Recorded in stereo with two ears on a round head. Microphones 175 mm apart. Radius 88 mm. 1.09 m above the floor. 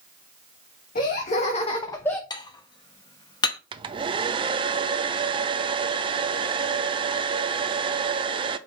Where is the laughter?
45° left (ahead or behind), 1.5 m; by 2.2 s 5° left (ahead or behind), 0.7 m.